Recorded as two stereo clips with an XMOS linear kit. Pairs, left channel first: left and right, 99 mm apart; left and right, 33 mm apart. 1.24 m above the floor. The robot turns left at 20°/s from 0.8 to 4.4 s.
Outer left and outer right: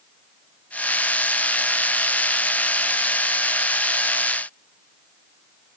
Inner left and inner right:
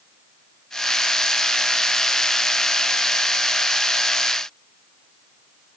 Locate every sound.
Only background noise.